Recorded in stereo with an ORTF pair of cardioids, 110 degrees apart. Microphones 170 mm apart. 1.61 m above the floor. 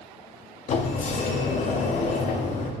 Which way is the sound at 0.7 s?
45° left.